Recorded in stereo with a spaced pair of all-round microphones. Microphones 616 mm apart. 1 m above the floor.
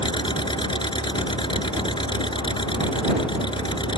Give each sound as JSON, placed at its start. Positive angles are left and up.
{"t": 0.0, "sound": "an engine running", "side_deg": 5}